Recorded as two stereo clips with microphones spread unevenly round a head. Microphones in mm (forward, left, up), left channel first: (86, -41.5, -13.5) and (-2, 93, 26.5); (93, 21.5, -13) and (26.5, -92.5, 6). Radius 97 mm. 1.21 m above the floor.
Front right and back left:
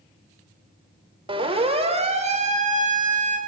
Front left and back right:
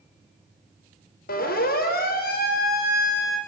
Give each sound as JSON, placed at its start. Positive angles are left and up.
{"t": 1.3, "sound": "a siren", "azimuth_deg": 65, "distance_m": 4.5}